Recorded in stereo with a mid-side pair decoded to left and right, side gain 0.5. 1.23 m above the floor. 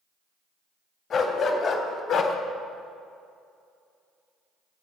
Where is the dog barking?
55° left, 2.5 m; by 2.4 s 70° left, 1.1 m.